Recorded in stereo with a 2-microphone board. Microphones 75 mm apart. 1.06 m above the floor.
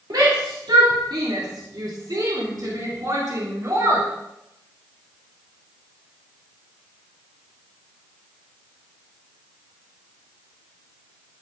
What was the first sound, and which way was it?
A shout, 75° right (ahead or behind).